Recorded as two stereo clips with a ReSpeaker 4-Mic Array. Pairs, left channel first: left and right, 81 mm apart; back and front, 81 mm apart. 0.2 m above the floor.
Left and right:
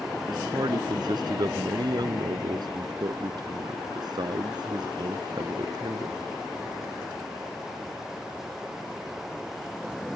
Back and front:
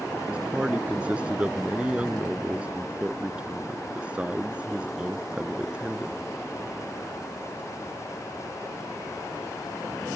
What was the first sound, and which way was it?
A man speaking, 75° right.